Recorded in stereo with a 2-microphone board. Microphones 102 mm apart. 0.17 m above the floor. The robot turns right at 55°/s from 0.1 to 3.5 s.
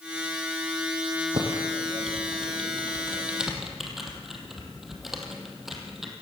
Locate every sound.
1.3 s typing on a keyboard: 60° right (ahead or behind), 3 m; by 6.1 s centre (ahead or behind), 3 m